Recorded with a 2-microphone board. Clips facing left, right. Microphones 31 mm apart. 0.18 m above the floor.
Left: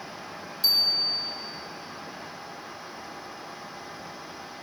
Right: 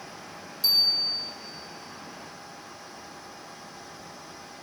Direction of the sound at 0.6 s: 20° left (ahead or behind).